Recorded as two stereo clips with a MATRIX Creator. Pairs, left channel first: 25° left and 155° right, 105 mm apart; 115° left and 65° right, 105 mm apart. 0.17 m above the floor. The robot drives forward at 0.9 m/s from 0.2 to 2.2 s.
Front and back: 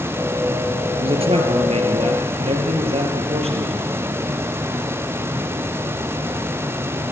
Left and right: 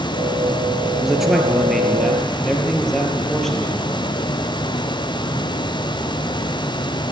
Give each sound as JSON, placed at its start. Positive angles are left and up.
{"t": 1.0, "sound": "a man speaking", "azimuth_deg": -155, "distance_m": 2.5}